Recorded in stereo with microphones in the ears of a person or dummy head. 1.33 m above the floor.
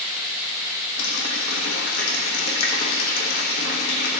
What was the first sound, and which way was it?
A running tap, 65° left (ahead or behind).